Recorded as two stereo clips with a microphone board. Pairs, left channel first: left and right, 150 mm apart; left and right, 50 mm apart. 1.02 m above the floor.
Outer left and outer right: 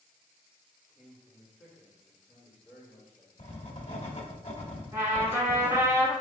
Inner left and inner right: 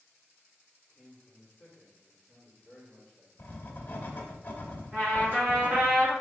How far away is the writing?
About 0.9 m.